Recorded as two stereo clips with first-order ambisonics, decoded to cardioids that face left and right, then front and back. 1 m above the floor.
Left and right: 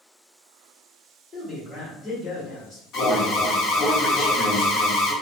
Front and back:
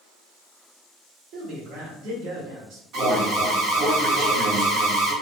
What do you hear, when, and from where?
1.3 s a man speaking: 155° left, 1.8 m
2.9 s an alarm: 135° left, 1.2 m